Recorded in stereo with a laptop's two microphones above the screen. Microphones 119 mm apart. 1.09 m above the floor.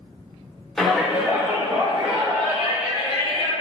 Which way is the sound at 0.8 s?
5° left (ahead or behind).